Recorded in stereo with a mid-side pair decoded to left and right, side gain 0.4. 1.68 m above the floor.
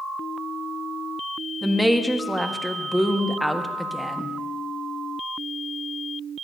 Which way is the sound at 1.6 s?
Straight ahead.